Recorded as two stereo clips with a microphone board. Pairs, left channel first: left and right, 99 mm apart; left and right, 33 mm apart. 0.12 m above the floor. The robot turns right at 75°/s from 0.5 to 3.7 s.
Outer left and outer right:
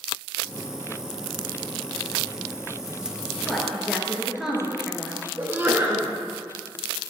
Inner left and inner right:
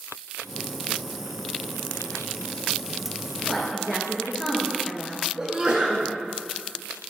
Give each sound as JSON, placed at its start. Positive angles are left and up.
{"t": 3.4, "sound": "a woman speaking", "side_deg": 10, "distance_m": 1.6}
{"t": 5.4, "sound": "a sneeze", "side_deg": -20, "distance_m": 1.1}